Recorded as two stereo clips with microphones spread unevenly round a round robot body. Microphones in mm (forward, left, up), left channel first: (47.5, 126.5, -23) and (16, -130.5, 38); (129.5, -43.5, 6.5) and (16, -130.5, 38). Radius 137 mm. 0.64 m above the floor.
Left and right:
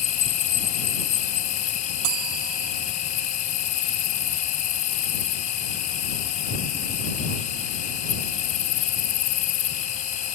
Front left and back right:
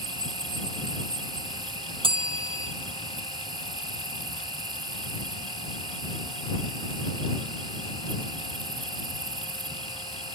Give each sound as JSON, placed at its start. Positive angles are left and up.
{"t": 0.0, "sound": "an insect", "azimuth_deg": 140}
{"t": 2.0, "sound": "a bell", "azimuth_deg": -90}